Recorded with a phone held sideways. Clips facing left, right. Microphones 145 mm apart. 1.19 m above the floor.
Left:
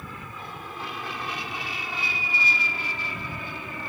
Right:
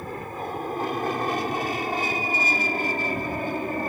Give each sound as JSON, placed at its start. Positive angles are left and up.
{"t": 0.0, "sound": "an aircraft", "side_deg": -45}